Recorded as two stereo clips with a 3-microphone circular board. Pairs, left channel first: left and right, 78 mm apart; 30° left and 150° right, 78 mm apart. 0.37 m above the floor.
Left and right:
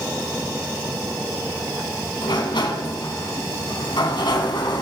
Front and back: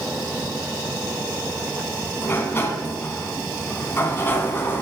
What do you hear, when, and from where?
2.2 s a sliding door: 90° left, 1.3 m